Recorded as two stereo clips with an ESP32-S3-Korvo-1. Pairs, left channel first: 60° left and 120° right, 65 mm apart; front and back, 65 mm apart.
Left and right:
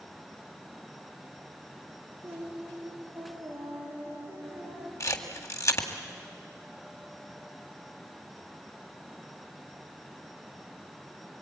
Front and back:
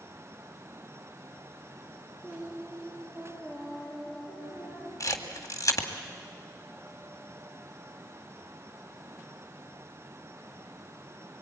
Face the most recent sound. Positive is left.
turn(degrees=25)